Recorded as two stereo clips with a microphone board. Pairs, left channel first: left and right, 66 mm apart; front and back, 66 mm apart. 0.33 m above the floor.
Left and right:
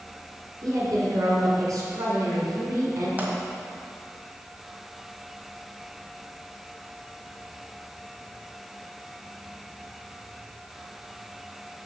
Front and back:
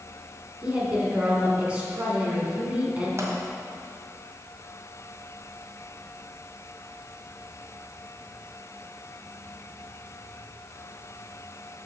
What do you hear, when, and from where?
0.6 s a woman speaking: 110° right, 3 m
3.2 s a pop: 150° right, 1.8 m